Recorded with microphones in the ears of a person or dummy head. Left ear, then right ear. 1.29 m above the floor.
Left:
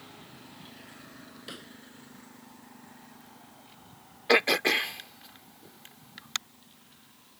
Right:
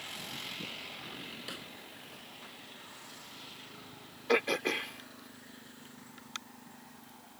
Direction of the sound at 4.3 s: 30° left (ahead or behind).